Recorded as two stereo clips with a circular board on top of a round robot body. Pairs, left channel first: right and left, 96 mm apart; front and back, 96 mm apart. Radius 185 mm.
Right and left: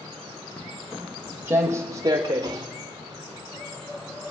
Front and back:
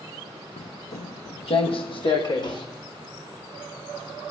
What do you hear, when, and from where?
0.6 s footsteps: 15° right, 0.5 m; by 2.7 s 35° left, 1.8 m